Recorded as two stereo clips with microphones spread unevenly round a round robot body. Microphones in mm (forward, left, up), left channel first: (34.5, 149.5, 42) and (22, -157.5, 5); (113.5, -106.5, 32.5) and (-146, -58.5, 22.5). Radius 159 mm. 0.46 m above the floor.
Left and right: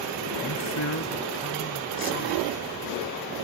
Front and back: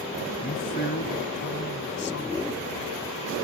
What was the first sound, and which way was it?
A man speaking, 50° left.